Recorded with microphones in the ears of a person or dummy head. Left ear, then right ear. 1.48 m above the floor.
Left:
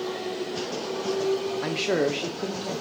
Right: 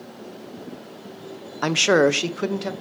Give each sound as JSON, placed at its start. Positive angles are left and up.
{"t": 1.6, "sound": "a man speaking", "side_deg": -45, "distance_m": 0.6}